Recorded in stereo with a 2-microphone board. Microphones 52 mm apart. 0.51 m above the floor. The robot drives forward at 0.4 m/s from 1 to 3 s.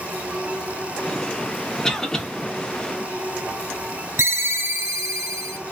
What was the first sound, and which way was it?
A cough, 10° left (ahead or behind).